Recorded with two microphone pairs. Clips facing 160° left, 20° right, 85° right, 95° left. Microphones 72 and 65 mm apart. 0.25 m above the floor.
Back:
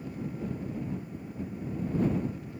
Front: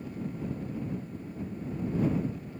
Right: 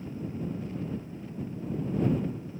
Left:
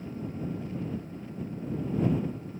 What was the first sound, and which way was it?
Only background noise.